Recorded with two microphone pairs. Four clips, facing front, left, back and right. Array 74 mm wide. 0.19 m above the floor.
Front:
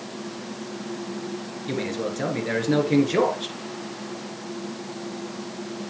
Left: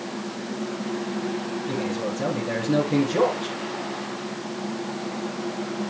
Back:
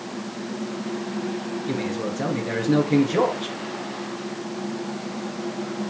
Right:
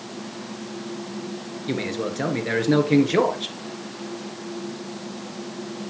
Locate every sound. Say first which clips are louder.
1.7 s a man speaking: right 3 dB, front 1 dB; 75° right, 2.5 m